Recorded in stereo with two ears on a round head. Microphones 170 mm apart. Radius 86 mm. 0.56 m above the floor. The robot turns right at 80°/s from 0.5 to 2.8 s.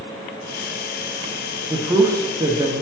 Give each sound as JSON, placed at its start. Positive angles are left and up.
{"t": 1.7, "sound": "a man speaking", "side_deg": -10, "distance_m": 0.6}